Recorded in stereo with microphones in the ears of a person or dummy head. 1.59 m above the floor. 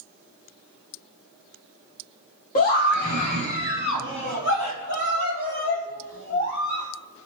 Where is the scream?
40° left (ahead or behind), 1.2 m; by 6.9 s 85° left, 4.5 m.